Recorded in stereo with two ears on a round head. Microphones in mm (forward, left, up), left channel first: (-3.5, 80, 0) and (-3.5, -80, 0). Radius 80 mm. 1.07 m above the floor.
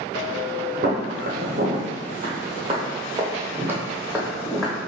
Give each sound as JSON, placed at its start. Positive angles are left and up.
{"t": 0.8, "sound": "footsteps", "side_deg": -50, "distance_m": 1.7}